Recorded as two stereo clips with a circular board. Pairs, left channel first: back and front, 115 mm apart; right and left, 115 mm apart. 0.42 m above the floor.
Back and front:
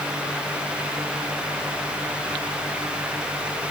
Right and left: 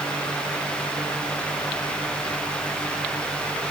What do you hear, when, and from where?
Only background noise.